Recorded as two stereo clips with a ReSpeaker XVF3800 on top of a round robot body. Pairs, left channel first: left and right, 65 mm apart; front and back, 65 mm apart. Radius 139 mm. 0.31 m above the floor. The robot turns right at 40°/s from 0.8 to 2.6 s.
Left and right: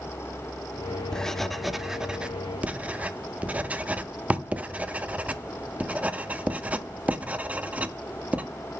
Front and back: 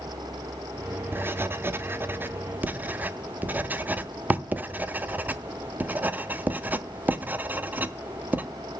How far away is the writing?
About 0.9 m.